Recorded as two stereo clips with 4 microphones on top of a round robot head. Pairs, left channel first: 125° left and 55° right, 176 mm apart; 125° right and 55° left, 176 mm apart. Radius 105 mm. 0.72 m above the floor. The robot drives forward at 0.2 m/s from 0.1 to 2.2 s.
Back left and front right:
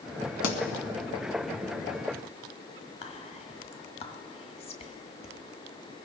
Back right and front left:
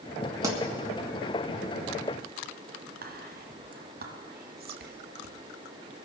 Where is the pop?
130° left, 1.6 m.